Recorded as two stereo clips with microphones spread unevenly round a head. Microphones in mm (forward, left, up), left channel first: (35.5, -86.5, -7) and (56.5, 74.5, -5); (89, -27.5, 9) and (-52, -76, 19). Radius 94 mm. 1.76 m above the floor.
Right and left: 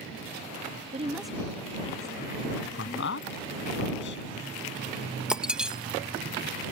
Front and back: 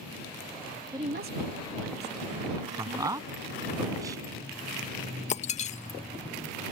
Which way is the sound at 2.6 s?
95° right.